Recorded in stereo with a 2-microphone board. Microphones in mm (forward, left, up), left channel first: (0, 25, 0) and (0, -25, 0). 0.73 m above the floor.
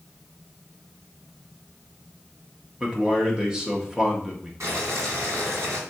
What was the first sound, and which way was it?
A man speaking, 15° right (ahead or behind).